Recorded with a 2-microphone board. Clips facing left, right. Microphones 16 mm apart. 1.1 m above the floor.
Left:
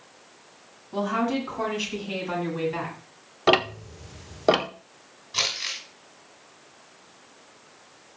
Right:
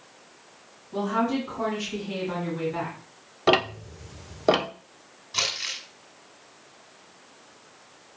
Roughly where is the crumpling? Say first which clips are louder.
Left 1 dB; centre.